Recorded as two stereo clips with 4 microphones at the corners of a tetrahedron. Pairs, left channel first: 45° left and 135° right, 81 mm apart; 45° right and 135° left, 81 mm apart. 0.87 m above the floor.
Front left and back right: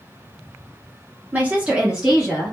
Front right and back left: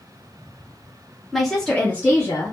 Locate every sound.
1.3 s a woman speaking: 140° right, 0.8 m; by 2.5 s 40° right, 1.0 m